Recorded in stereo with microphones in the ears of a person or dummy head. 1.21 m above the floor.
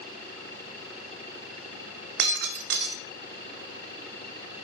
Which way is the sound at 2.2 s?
65° right (ahead or behind).